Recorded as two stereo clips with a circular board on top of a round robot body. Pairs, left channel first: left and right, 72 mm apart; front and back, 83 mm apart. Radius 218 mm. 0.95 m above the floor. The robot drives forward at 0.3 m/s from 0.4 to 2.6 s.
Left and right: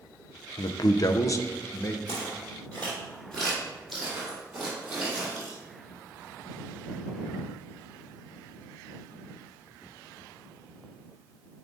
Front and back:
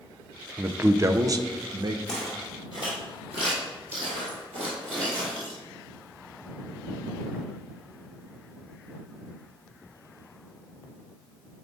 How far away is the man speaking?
About 0.5 m.